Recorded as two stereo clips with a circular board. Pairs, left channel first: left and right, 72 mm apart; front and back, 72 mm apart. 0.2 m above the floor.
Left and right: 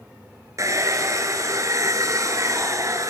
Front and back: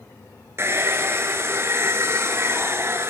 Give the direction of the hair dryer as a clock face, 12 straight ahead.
4 o'clock.